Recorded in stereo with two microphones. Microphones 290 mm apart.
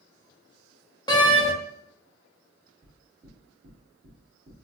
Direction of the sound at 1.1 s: 15° left (ahead or behind).